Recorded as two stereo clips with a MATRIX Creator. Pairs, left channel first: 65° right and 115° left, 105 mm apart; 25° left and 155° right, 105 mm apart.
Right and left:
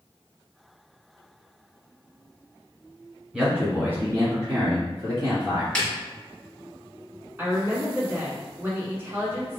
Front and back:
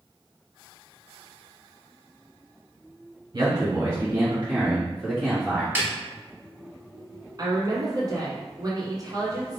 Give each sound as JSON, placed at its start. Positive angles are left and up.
{"t": 3.3, "sound": "a man speaking", "azimuth_deg": -170, "distance_m": 1.7}
{"t": 5.8, "sound": "a snare drum", "azimuth_deg": -130, "distance_m": 1.1}
{"t": 7.4, "sound": "a woman speaking", "azimuth_deg": 175, "distance_m": 1.5}